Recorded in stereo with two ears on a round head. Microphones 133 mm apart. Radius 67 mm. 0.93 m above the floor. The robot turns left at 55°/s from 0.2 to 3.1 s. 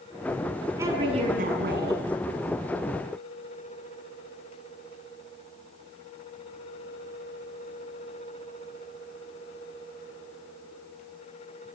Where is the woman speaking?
20° right, 8 m; by 2.0 s 85° right, 8 m.